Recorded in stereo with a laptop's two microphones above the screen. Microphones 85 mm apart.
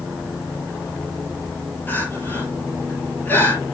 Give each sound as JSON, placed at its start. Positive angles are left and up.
{"t": 1.9, "sound": "crying", "side_deg": 25, "distance_m": 4.0}